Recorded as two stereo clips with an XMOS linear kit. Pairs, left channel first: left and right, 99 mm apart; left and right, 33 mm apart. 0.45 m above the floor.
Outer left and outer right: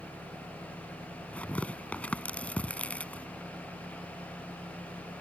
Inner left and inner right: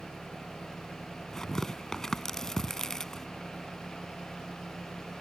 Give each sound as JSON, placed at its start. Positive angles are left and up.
{"t": 0.0, "sound": "an engine running", "side_deg": -70}
{"t": 1.3, "sound": "tearing paper", "side_deg": 15}